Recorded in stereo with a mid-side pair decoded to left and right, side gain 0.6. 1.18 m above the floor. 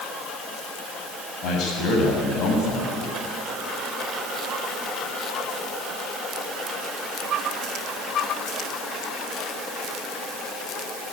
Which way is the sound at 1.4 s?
60° left.